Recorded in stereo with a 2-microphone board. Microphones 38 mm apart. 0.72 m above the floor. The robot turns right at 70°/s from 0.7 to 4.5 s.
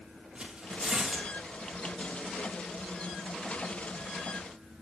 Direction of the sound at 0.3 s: 30° right (ahead or behind).